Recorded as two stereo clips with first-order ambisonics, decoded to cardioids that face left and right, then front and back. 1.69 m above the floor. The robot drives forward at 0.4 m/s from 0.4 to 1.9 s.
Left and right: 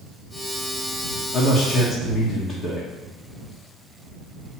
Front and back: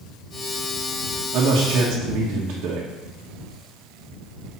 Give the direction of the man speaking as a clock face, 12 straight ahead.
7 o'clock.